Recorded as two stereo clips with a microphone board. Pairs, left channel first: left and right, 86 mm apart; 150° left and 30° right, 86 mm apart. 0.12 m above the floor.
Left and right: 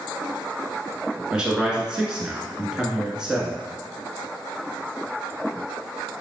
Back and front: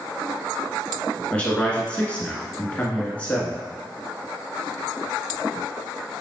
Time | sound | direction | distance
1.3 | a man speaking | 160° right | 1.1 m